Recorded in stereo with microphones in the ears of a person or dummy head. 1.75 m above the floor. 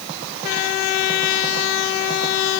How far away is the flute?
No flute in this recording.